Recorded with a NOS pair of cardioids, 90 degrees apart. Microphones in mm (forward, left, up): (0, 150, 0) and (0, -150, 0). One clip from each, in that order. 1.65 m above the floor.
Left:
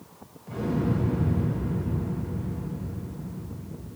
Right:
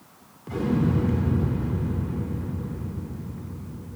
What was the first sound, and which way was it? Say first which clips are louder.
An explosion: right 3 dB; 65° right.